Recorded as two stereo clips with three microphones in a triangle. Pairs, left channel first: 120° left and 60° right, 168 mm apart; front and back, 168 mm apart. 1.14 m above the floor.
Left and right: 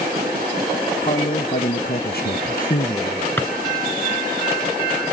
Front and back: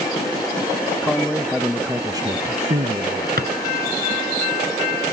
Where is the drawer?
160° right.